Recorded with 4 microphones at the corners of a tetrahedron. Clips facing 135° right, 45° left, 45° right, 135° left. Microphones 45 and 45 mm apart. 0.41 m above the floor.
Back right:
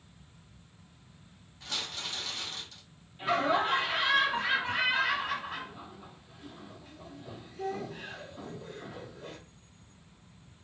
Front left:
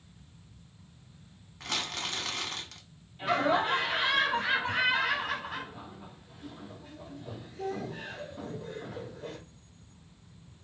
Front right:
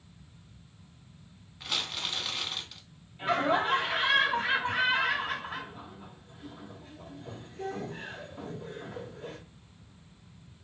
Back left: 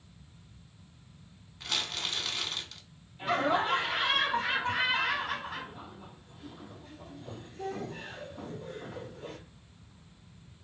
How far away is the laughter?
About 1.4 m.